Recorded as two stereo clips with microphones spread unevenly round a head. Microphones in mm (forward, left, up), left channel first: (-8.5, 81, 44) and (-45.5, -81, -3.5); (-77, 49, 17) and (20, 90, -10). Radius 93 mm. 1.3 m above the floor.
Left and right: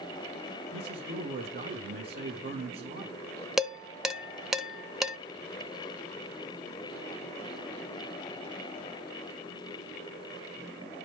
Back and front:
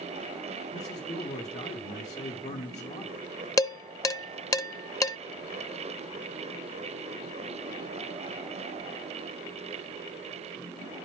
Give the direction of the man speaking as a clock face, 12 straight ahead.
4 o'clock.